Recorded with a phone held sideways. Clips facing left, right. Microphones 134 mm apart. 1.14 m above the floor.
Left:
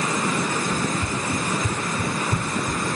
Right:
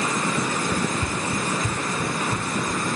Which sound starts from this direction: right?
Running footsteps, at 0.7 s.